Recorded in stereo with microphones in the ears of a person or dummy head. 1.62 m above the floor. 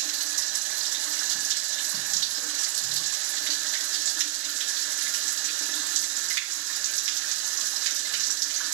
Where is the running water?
80° right, 1.1 m.